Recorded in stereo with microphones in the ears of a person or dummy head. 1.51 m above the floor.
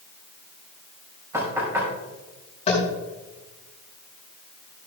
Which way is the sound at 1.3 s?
10° right (ahead or behind).